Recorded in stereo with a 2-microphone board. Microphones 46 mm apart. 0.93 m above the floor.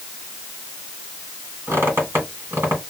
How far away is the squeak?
About 2 m.